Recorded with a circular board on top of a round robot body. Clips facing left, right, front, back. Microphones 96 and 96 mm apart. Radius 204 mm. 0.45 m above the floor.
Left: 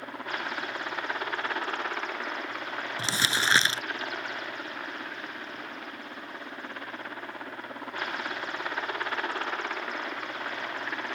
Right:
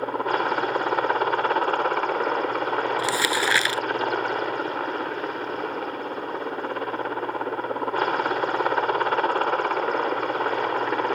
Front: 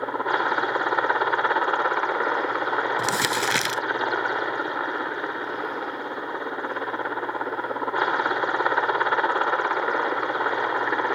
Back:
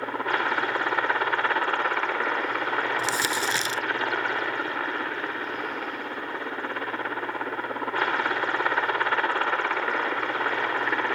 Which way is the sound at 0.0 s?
70° right.